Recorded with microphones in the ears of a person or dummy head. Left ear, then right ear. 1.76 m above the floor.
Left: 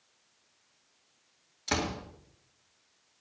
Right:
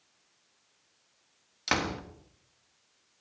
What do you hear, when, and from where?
1.7 s a door slam: 50° right (ahead or behind), 1.7 m